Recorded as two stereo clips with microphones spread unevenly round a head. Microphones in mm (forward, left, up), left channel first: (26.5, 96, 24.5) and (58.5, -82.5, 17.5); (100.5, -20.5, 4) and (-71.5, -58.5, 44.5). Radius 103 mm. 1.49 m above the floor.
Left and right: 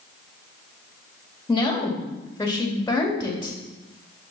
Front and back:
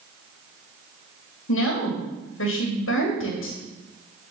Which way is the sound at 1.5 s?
25° left.